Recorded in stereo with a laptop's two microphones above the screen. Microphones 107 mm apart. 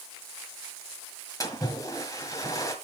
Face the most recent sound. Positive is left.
turn(degrees=30)  # may be behind; listen again after turning